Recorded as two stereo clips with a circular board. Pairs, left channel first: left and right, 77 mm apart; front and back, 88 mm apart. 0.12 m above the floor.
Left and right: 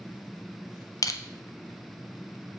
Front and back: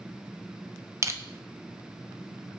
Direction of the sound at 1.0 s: 125° left.